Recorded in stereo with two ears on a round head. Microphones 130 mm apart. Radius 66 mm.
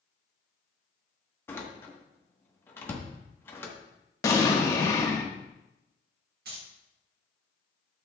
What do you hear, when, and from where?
1.5 s a door slam: 15° left (ahead or behind), 1.3 m
4.2 s an explosion: 20° left (ahead or behind), 1.1 m
6.5 s keys jangling: 65° right (ahead or behind), 1.7 m